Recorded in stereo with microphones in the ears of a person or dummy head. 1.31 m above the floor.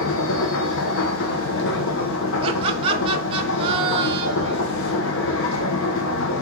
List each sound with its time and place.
0.0 s a machine running: 65° left (ahead or behind), 0.9 m
2.4 s laughter: 30° right (ahead or behind), 0.7 m